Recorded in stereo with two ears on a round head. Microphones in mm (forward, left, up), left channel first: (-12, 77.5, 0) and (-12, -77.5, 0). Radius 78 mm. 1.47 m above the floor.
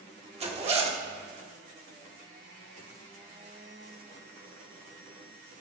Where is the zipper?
35° right (ahead or behind), 1.3 m.